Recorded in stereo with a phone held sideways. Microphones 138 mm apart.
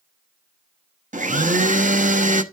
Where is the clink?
No clink in this recording.